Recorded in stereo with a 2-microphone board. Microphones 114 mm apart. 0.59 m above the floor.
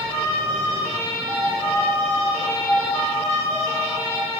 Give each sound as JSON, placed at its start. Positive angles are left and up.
{"t": 1.3, "sound": "a piano", "side_deg": 5, "distance_m": 1.6}